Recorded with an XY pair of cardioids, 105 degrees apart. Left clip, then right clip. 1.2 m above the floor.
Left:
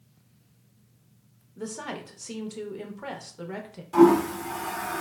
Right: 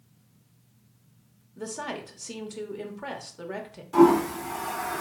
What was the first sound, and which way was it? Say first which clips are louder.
A woman speaking: right 1 dB; straight ahead.